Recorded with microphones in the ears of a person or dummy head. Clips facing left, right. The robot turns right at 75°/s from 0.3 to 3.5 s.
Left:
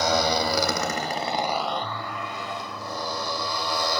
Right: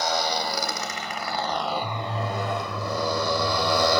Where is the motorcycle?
70° left (ahead or behind); by 4.0 s 60° right (ahead or behind).